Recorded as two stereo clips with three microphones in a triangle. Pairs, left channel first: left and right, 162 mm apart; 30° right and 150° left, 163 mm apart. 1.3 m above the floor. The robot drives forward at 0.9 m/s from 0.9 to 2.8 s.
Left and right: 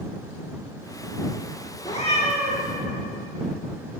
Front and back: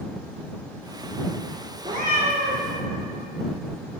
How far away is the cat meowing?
About 1.3 m.